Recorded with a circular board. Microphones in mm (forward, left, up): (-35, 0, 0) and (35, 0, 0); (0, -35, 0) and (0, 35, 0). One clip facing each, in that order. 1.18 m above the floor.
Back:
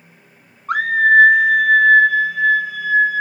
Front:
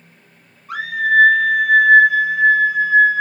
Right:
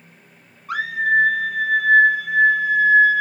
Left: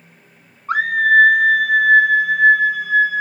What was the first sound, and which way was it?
A scream, 145° left.